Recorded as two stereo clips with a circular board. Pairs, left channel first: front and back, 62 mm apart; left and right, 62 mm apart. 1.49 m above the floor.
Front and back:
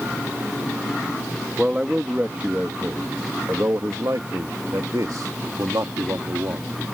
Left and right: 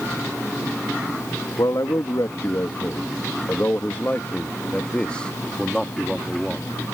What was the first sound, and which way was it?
A man speaking, 105° left.